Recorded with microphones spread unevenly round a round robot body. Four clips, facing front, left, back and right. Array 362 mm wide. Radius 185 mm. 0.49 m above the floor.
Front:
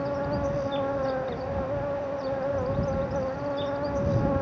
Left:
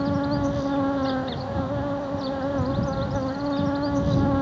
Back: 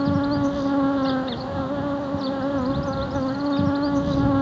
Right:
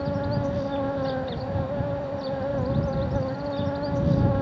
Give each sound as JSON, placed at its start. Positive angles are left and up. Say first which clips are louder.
{"t": 0.0, "sound": "an insect", "louder": "left 3 dB, back 7 dB", "azimuth_deg": -175}